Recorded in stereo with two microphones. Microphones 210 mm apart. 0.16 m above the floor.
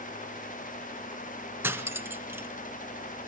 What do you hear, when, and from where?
1.6 s cutlery clinking: 10° right (ahead or behind), 0.9 m